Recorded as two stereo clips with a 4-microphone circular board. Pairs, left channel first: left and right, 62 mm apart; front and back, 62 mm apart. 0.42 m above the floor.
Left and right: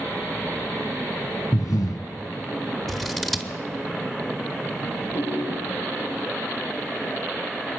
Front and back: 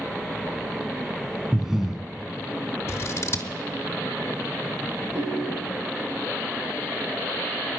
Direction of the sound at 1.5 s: 100° left.